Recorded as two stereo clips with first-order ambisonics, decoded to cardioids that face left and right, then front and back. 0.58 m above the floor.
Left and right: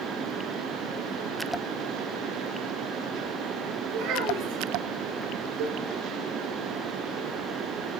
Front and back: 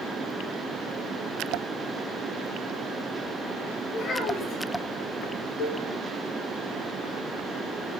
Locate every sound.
3.9 s a child speaking: 60° right, 5.5 m
5.6 s a cowbell: 60° right, 3 m